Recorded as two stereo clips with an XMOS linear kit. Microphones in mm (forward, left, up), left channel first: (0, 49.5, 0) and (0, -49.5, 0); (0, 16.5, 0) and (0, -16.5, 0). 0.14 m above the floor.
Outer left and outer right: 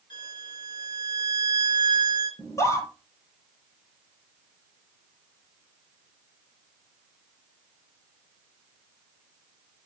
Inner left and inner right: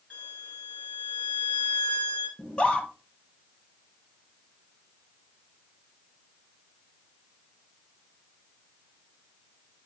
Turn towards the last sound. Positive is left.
turn(degrees=30)  # may be behind; listen again after turning